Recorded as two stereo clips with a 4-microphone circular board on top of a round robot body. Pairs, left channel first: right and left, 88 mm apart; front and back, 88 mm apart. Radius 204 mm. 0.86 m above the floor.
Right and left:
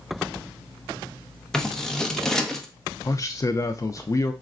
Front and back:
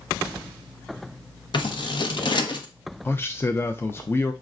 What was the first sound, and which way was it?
Scissors, 10° right.